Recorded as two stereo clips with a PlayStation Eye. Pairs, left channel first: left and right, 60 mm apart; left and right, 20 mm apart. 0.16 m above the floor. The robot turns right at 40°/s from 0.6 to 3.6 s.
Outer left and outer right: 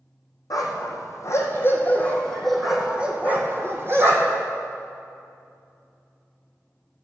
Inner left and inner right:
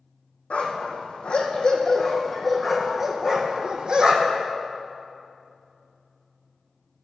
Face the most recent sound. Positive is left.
turn(degrees=-40)  # may be behind; listen again after turning